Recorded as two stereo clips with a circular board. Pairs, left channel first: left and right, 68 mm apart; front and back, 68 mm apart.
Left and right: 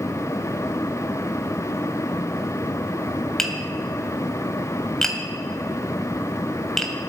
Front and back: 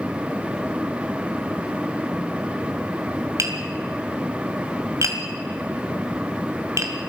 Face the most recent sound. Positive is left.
turn(degrees=170)